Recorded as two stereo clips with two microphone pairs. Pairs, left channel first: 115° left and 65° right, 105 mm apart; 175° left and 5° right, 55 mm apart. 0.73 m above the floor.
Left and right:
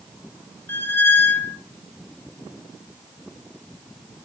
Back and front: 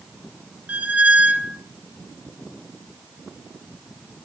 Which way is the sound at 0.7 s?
50° left.